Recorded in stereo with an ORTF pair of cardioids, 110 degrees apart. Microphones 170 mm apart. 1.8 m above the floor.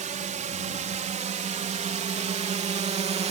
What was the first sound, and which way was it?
A drone, 45° right.